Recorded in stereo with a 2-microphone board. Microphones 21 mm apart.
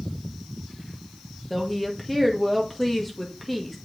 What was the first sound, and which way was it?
A woman speaking, 5° left (ahead or behind).